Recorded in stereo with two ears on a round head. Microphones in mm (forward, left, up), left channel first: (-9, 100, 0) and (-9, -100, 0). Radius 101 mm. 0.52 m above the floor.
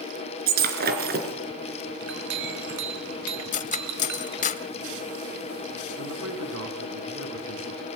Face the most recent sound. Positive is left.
turn(degrees=-65)  # may be behind; listen again after turning